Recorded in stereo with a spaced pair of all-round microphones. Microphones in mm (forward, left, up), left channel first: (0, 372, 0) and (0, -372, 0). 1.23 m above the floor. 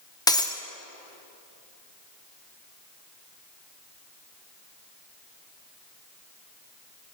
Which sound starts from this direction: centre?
Breaking glass, at 0.3 s.